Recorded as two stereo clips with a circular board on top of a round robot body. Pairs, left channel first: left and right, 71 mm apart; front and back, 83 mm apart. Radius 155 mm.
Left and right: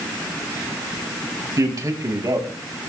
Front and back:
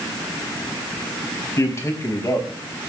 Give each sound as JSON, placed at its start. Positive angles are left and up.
{"t": 1.6, "sound": "a man speaking", "azimuth_deg": -50, "distance_m": 4.0}